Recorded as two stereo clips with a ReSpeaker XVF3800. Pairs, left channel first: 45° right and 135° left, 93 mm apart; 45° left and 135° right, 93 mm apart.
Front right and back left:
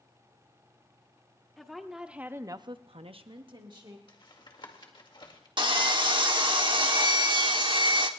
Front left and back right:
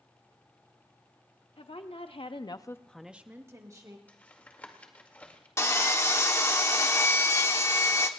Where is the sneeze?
I don't hear a sneeze.